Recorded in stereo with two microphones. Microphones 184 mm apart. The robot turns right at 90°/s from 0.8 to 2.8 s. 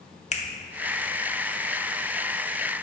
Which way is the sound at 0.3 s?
40° left (ahead or behind).